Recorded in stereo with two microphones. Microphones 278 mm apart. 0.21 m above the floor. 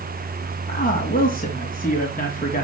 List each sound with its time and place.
0.7 s a man speaking: 30° left (ahead or behind), 2 m